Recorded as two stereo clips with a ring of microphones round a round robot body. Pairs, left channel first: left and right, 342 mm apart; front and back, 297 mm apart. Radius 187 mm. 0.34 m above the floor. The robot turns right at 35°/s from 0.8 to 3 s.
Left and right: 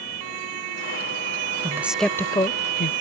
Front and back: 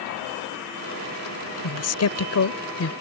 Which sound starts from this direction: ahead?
A man speaking, at 1.6 s.